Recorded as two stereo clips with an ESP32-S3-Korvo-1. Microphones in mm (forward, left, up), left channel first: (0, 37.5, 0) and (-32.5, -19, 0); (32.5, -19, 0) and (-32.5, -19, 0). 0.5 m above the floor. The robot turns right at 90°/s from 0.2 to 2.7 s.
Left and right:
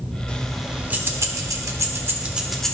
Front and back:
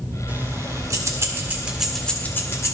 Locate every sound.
0.3 s keys jangling: 125° left, 1.1 m; by 2.7 s 15° right, 1.1 m